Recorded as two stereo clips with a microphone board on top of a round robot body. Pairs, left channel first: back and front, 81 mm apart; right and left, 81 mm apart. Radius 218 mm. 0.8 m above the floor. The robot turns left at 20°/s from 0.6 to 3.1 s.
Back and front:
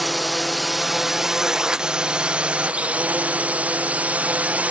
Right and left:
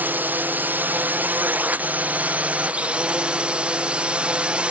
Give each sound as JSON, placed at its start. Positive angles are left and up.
{"t": 0.0, "sound": "a drone", "azimuth_deg": 90}